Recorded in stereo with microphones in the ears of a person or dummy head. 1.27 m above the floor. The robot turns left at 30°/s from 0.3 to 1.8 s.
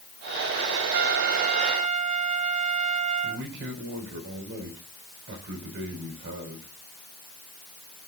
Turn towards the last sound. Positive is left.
turn(degrees=-60)  # may be behind; listen again after turning